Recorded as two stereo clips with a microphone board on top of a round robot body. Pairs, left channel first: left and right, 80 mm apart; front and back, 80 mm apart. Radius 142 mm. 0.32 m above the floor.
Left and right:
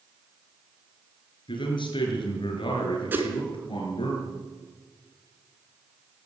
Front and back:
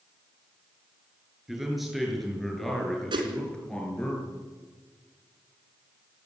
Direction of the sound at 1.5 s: 95° left.